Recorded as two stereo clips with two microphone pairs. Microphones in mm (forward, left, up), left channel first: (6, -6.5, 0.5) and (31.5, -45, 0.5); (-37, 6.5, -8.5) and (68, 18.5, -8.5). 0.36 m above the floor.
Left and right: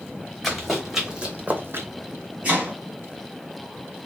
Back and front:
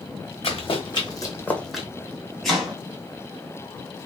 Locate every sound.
0.4 s running footsteps: 150° right, 1.2 m; by 1.9 s 70° right, 0.7 m
2.4 s chopping: 85° right, 1.4 m